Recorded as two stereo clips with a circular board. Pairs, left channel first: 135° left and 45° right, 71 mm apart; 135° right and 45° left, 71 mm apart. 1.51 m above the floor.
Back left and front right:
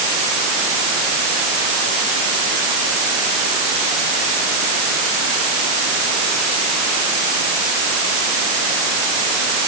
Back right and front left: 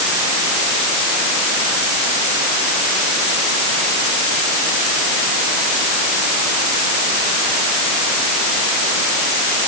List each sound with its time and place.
Only background noise.